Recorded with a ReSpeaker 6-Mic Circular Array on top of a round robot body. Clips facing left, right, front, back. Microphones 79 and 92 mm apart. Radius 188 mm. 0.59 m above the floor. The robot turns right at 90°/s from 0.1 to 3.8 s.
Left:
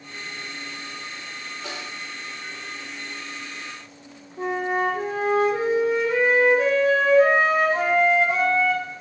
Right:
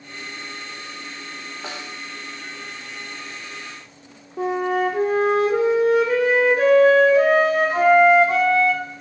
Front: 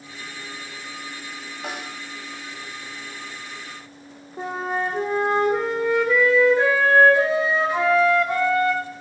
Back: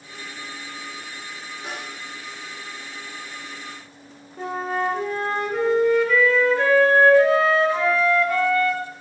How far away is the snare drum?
About 0.9 m.